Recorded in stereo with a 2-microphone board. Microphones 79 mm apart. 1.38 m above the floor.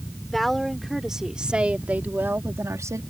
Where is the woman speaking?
Centre (ahead or behind); by 3.0 s 40° right (ahead or behind).